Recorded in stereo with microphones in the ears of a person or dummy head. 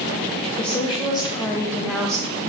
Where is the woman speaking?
30° left (ahead or behind), 3 m; by 2.4 s 5° right (ahead or behind), 2 m.